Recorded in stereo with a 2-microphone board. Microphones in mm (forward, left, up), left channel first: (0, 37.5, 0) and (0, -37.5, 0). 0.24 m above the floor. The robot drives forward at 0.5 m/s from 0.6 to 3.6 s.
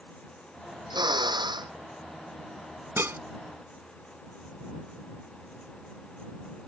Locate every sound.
0.9 s a drill: 85° right
3.0 s dishes clattering: 35° right (ahead or behind)